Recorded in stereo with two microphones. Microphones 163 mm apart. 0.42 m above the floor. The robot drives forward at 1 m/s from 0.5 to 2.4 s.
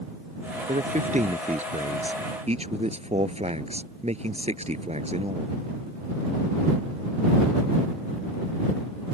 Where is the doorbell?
No doorbell in this recording.